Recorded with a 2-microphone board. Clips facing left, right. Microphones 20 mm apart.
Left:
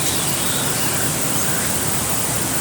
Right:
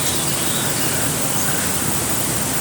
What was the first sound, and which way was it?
Only background noise.